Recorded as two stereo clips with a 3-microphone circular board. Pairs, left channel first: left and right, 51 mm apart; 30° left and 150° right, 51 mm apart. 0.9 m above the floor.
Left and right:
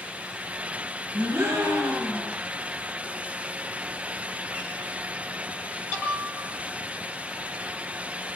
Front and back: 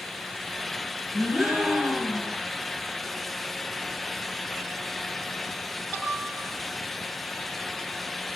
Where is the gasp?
60° right, 9 m.